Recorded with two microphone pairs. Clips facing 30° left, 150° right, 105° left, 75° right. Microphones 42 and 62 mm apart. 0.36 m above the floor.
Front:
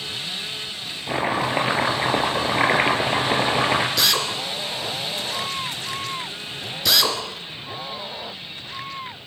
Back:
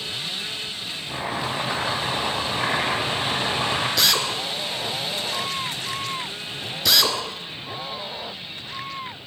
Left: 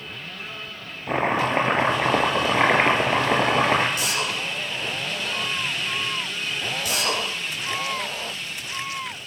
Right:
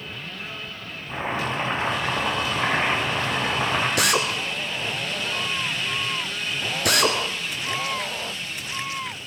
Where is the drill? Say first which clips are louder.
Even, right 4 dB; 55° right, 2 m.